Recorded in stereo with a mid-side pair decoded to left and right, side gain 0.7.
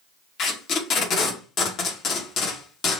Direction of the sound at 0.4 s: 45° left.